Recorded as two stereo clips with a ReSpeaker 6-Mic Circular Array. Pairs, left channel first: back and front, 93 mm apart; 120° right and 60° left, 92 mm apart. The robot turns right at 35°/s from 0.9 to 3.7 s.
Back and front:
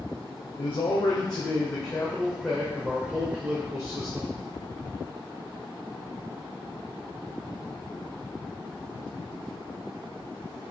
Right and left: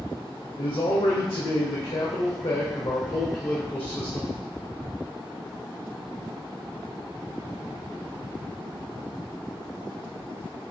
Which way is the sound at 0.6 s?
150° right.